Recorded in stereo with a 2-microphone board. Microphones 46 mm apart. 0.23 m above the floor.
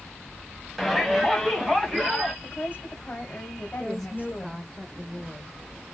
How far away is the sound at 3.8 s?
About 1.1 m.